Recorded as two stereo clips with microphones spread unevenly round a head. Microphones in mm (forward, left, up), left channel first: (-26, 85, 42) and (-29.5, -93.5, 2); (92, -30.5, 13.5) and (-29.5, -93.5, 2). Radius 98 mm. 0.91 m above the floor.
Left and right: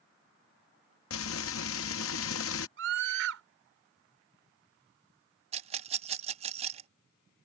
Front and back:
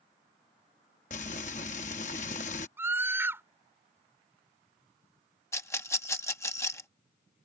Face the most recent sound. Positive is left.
turn(degrees=-45)